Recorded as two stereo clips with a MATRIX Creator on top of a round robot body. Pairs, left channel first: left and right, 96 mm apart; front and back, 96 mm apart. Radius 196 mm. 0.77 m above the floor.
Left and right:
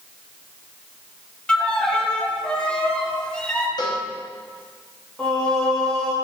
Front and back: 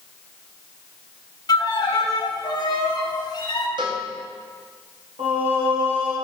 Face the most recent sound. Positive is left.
turn(degrees=170)